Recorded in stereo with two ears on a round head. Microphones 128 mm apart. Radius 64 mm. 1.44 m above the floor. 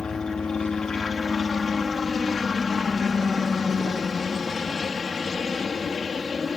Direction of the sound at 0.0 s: 5° left (ahead or behind).